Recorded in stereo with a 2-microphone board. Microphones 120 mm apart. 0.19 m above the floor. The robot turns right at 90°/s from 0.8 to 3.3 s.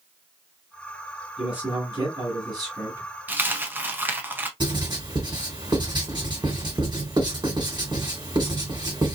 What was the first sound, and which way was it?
A man speaking, straight behind.